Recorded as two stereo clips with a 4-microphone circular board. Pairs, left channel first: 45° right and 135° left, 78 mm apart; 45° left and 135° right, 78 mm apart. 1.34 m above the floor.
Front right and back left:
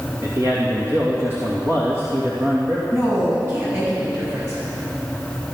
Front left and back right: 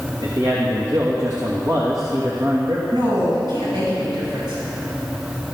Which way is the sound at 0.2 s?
170° right.